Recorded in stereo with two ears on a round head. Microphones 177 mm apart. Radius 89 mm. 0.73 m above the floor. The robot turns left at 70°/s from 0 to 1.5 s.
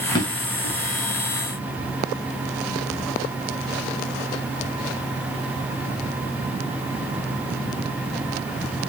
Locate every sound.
0.1 s a drawer: 20° left (ahead or behind), 3 m; by 0.7 s 65° left (ahead or behind), 3 m